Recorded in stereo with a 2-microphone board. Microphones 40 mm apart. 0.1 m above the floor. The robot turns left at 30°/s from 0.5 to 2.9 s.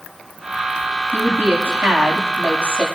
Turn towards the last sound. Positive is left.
turn(degrees=-160)